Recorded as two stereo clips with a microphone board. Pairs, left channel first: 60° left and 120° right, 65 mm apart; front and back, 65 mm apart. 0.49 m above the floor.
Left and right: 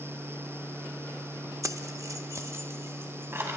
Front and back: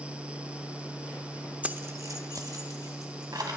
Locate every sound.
1.6 s keys jangling: 110° right, 0.5 m; by 3.6 s 170° right, 2 m